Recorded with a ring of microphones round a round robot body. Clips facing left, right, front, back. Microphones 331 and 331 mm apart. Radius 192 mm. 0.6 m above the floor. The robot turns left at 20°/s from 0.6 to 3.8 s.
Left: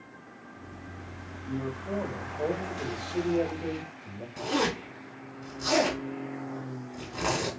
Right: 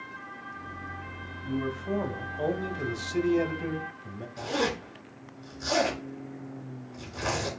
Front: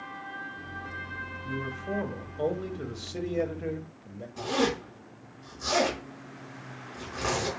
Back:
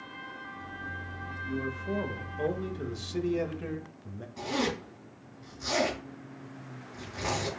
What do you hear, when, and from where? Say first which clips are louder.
1.4 s a man speaking: right 3 dB, back 1 dB; 80° right, 0.8 m; by 4.3 s 130° right, 0.8 m
4.4 s a zipper: left 1 dB, front 4 dB; 70° left, 2.5 m